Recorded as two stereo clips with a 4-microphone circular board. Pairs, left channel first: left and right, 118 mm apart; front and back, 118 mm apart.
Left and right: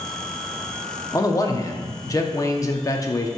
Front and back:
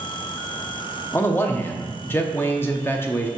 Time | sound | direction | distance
1.1 | a man speaking | 55° left | 0.7 m